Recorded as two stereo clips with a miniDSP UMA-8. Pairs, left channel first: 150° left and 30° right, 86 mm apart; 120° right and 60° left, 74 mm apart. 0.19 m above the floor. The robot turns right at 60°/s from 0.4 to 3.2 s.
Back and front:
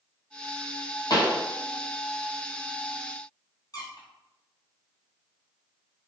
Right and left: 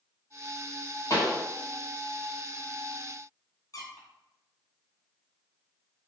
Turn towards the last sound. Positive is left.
turn(degrees=-165)